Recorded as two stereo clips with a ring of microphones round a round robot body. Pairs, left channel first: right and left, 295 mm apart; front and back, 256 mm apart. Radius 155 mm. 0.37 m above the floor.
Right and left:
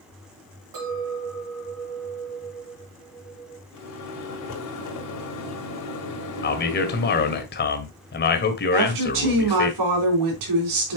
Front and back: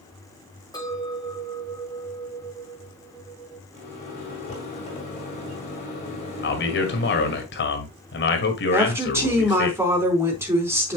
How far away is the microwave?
About 3 m.